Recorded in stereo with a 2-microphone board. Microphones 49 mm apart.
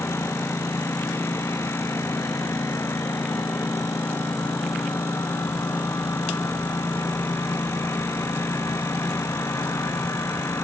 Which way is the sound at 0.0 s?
65° left (ahead or behind).